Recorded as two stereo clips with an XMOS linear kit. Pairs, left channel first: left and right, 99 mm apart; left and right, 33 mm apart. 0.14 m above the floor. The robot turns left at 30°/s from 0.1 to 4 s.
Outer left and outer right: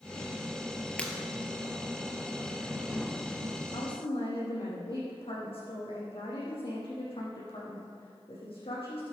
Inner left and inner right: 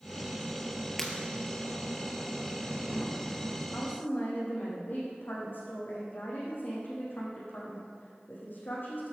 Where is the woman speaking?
55° left (ahead or behind), 7 m; by 9.1 s 65° left (ahead or behind), 7 m.